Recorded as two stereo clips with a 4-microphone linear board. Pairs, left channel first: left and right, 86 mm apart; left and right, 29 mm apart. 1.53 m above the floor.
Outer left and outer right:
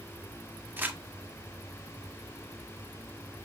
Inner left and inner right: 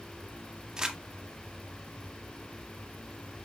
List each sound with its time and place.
0.8 s crumpling: 25° right (ahead or behind), 1.3 m